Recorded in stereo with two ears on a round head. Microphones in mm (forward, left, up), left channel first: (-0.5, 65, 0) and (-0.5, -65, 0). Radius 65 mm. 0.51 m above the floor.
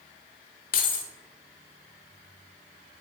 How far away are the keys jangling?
About 1.1 m.